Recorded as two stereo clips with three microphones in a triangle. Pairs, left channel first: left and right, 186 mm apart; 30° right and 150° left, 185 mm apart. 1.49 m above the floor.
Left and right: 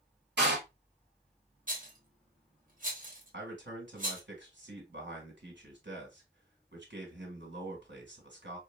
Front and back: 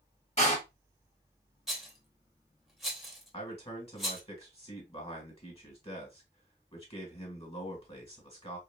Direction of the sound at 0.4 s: 80° right.